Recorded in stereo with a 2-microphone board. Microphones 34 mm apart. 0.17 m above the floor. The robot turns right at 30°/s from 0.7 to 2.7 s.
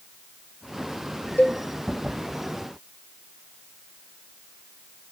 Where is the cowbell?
55° left (ahead or behind), 0.6 m; by 1.6 s 65° left (ahead or behind), 0.6 m.